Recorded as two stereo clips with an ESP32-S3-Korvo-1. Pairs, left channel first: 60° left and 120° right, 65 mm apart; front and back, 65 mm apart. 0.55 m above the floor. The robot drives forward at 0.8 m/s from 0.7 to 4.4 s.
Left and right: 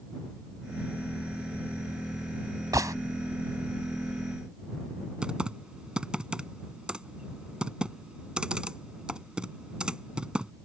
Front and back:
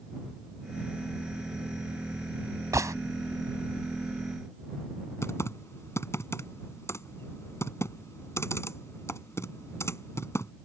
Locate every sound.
2.7 s a gunshot: 145° right; by 3.0 s 150° right
5.2 s typing on a keyboard: 45° right